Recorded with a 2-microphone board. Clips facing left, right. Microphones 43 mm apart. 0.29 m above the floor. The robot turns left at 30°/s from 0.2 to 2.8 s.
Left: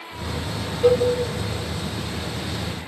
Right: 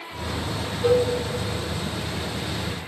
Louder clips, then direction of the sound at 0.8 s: Left 2 dB; 30° left (ahead or behind).